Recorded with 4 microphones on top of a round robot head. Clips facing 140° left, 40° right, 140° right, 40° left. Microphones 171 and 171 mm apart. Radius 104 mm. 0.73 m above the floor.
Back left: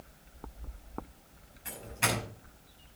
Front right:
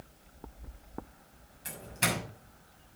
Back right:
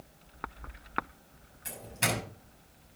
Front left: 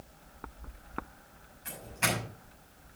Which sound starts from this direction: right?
A doorbell, at 1.6 s.